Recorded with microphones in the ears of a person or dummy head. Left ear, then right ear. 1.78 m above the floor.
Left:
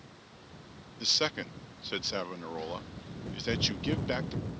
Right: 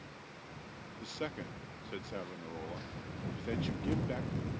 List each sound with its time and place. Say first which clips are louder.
1.0 s a man speaking: left 13 dB; 40° left (ahead or behind)